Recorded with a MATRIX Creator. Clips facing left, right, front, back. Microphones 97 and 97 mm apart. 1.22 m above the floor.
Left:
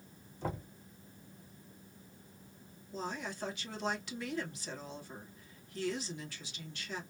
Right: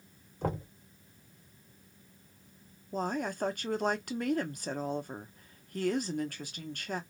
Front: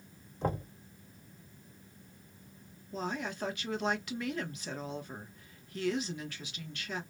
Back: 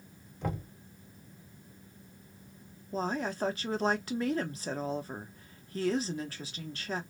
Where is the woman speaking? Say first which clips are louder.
Right 7 dB, back 4 dB; 125° right, 0.7 m.